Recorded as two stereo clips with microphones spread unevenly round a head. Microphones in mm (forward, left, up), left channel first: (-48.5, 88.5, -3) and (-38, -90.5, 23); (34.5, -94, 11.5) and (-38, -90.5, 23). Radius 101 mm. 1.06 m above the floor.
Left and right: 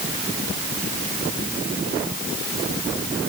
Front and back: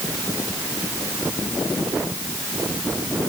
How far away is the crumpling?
No crumpling in this recording.